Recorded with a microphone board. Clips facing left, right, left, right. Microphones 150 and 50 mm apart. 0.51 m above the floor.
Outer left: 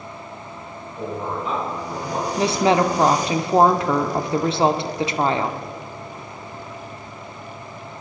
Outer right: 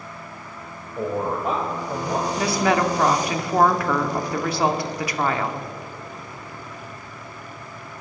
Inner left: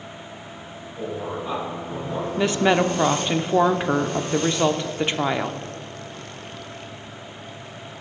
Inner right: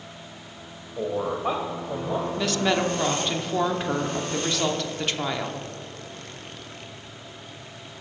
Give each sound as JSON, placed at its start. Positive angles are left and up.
{"t": 1.0, "sound": "a man speaking", "side_deg": -45, "distance_m": 2.0}
{"t": 2.4, "sound": "a woman speaking", "side_deg": 25, "distance_m": 0.7}